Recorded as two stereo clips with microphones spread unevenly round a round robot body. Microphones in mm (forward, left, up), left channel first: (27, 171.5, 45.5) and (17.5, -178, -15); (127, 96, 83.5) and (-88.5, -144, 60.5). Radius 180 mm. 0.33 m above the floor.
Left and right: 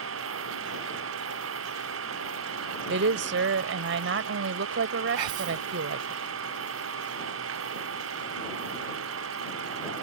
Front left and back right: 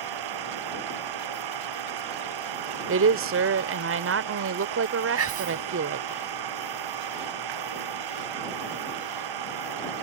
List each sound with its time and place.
0.0 s an engine running: 150° right
2.9 s a woman speaking: 115° right
5.2 s whispering: 85° right